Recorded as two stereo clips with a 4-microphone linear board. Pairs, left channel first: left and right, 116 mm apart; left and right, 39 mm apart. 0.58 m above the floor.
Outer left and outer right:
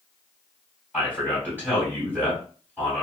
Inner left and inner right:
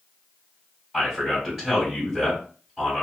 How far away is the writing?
I don't hear writing.